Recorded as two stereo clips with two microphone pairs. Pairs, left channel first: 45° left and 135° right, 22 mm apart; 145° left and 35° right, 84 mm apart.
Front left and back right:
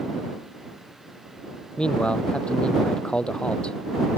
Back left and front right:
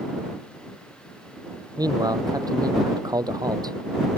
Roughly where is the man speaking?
Ahead.